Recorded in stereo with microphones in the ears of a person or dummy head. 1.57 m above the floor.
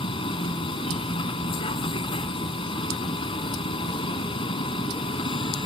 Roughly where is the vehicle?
Left.